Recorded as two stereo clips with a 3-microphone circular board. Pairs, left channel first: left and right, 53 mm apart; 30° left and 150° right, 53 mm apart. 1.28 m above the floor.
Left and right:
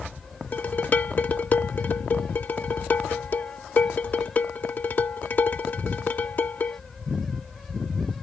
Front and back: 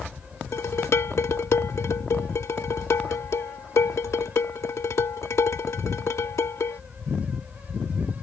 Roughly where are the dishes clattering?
Ahead left.